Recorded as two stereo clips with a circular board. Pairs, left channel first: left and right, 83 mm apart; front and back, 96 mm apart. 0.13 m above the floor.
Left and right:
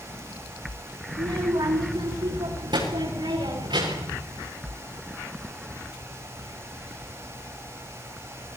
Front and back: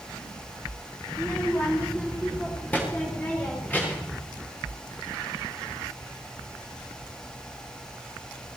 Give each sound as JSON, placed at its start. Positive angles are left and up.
{"t": 1.1, "sound": "a child speaking", "azimuth_deg": -75, "distance_m": 8.5}